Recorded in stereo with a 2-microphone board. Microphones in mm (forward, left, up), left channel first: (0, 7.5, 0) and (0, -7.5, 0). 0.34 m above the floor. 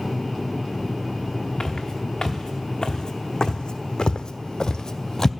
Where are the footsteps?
50° left (ahead or behind), 1.9 m; by 5.3 s 40° left (ahead or behind), 0.7 m.